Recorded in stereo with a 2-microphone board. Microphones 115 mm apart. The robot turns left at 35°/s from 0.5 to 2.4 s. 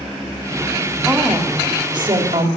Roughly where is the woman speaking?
Ahead.